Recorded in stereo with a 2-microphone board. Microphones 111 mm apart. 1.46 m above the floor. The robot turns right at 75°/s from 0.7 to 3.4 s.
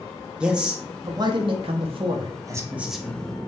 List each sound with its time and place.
0.4 s a man speaking: 170° right, 0.6 m; by 3.4 s 30° left, 0.6 m